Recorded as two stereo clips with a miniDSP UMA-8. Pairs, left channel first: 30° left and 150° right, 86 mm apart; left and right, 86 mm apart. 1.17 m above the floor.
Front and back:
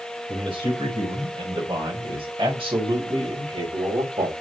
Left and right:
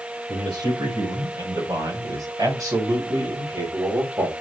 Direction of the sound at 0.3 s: 120° right.